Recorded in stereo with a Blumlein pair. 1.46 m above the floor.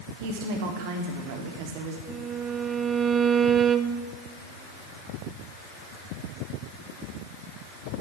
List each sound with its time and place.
0.2 s a woman speaking: 50° right, 3 m
2.1 s a violin: 20° right, 0.7 m